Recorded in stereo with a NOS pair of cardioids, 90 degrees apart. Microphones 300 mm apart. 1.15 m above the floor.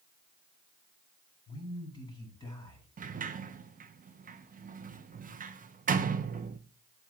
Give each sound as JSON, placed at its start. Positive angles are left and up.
{"t": 1.5, "sound": "a man speaking", "azimuth_deg": 15, "distance_m": 5.5}
{"t": 3.0, "sound": "a sliding door", "azimuth_deg": -30, "distance_m": 0.8}